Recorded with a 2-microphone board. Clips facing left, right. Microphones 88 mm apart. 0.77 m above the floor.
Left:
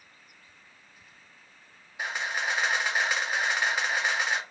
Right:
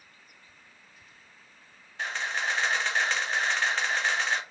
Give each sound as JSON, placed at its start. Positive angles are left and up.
{"t": 2.0, "sound": "a camera shutter", "side_deg": 10, "distance_m": 0.8}